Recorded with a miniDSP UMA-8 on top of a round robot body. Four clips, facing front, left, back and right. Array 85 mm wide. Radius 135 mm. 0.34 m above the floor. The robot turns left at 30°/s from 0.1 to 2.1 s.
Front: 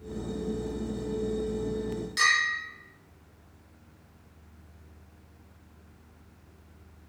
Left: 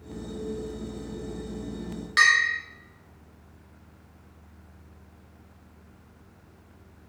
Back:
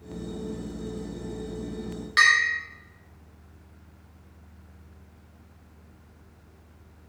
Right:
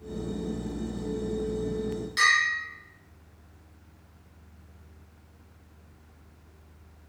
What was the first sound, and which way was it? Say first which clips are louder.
A bell: left 3 dB, back 6 dB; 140° left.